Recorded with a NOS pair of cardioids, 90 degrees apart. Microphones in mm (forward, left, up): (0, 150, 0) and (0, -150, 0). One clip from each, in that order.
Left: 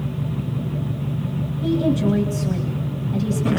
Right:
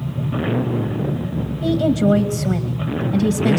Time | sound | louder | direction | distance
1.6 | a woman speaking | right 3 dB | 55° right | 2.5 m